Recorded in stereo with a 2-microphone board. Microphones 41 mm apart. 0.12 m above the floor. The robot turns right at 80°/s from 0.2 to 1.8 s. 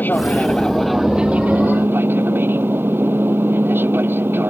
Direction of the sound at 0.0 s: 125° left.